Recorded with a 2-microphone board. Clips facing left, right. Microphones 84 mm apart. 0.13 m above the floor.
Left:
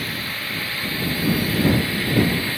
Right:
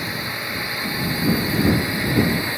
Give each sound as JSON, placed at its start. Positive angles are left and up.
{"t": 0.0, "sound": "a drone", "side_deg": -15}